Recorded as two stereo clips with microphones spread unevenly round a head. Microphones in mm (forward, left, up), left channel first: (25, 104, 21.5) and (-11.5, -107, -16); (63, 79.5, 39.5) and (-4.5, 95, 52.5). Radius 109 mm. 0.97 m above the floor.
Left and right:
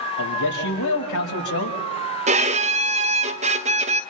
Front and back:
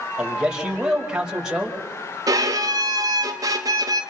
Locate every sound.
0.2 s a man speaking: 85° left, 4.5 m
2.3 s a violin: 150° right, 0.9 m